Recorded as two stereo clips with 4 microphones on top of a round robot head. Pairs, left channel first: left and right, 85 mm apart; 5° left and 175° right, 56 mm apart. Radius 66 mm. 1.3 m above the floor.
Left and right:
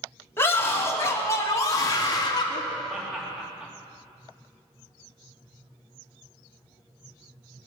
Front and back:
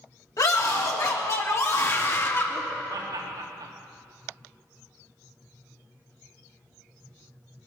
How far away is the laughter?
About 2.5 m.